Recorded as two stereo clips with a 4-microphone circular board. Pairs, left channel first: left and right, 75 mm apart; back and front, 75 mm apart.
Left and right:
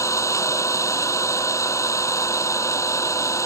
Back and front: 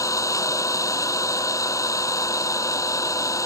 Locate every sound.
0.0 s an engine running: 135° left